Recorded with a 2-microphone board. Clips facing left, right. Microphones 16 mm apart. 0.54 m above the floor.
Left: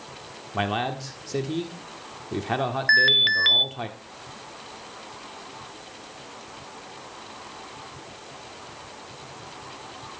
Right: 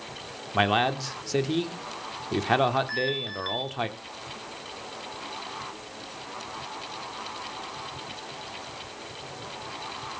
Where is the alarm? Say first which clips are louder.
Left 11 dB; 55° left (ahead or behind), 0.7 m.